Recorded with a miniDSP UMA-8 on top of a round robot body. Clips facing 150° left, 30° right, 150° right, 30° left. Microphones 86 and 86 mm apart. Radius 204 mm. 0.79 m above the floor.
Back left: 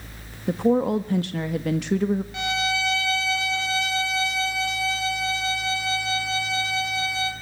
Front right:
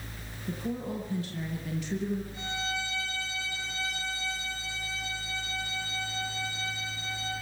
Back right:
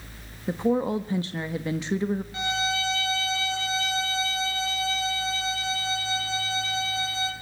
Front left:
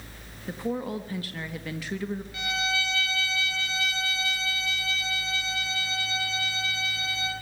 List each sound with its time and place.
0.5 s a woman speaking: 145° left, 1.5 m
2.3 s a violin: 150° left, 5 m